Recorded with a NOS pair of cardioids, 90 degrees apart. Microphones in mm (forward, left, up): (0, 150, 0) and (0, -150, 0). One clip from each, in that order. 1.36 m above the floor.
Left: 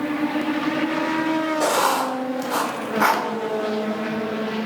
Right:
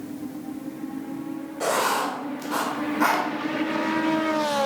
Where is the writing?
30° left, 2.5 m.